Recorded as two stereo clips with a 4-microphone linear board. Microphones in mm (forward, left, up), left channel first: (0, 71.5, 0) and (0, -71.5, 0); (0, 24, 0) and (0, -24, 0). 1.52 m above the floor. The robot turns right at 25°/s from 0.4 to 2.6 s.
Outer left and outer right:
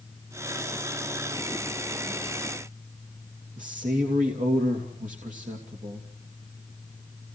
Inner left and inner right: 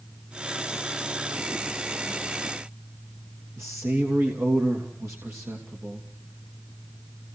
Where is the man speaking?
80° right, 3 m.